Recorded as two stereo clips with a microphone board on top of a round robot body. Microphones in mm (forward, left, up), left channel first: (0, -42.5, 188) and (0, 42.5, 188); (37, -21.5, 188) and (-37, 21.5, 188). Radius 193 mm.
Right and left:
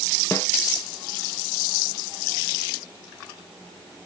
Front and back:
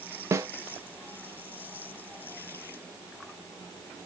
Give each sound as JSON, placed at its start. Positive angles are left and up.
{"t": 0.3, "sound": "a snare drum", "azimuth_deg": -155, "distance_m": 0.7}